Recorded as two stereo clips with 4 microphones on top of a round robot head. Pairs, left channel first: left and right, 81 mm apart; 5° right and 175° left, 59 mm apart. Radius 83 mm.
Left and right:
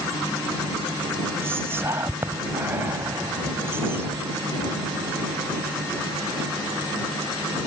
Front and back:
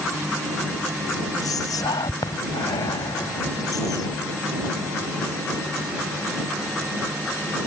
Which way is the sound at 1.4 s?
25° right.